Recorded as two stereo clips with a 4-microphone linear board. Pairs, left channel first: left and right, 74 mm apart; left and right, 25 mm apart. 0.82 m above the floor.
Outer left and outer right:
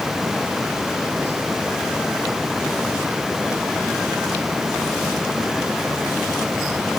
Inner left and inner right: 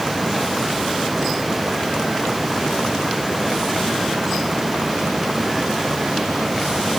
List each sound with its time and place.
Only background noise.